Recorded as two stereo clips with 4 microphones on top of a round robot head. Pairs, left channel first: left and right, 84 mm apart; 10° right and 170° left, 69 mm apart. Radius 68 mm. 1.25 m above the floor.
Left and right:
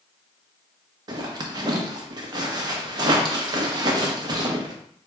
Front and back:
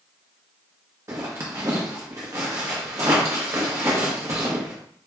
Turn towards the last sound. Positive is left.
turn(degrees=-130)